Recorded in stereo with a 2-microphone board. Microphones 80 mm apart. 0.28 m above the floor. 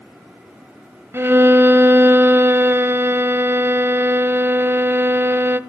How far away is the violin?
About 1.0 m.